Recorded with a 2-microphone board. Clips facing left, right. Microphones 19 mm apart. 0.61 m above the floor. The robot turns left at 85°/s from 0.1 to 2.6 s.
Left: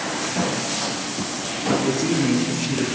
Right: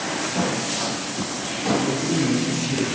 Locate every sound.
1.7 s a woman speaking: 95° left, 6.5 m; by 2.9 s 20° left, 6.5 m